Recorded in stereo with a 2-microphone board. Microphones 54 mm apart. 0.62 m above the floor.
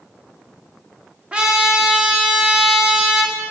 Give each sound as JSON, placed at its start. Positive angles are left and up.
{"t": 1.3, "sound": "a trumpet", "side_deg": -20, "distance_m": 1.1}